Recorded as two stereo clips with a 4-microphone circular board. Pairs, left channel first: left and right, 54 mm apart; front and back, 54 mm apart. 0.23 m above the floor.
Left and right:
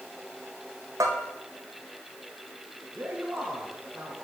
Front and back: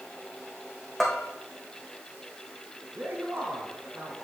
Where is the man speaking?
140° right, 2.5 m.